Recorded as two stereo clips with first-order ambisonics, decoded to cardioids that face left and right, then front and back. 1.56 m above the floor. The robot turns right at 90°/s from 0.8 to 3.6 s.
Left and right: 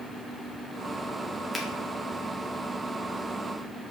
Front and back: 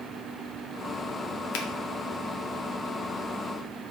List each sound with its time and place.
1.5 s a finger snap: 5° left, 1.2 m; by 1.7 s 15° left, 1.2 m